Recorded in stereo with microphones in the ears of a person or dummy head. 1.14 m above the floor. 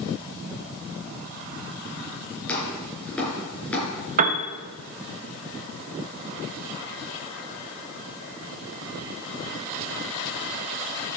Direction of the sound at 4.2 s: 45° right (ahead or behind).